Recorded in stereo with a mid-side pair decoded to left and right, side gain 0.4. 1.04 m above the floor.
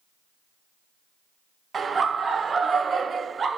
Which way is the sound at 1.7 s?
45° right.